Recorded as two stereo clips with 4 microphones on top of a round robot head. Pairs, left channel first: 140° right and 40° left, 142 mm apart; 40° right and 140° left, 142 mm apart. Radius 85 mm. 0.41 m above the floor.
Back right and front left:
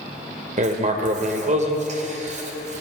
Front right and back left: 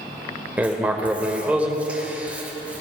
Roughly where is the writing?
Ahead left.